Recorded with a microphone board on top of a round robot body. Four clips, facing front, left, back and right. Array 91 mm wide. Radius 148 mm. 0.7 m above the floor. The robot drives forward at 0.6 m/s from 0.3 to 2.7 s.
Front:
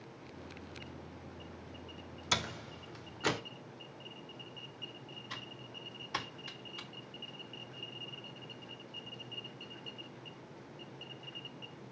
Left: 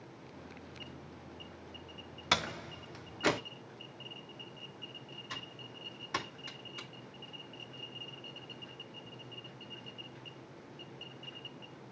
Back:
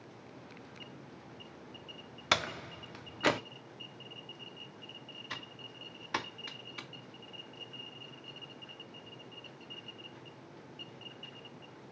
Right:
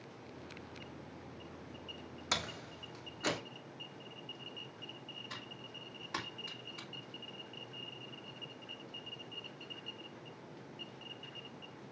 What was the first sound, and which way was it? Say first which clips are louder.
A door slam: left 6 dB, back 5 dB; 155° left.